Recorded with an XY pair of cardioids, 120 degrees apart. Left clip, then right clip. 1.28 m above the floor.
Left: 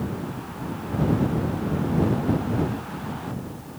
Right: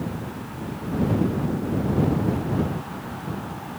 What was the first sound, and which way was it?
Only background noise.